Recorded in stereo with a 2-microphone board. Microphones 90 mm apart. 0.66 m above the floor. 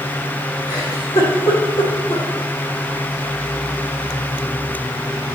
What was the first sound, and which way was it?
A giggle, 85° left.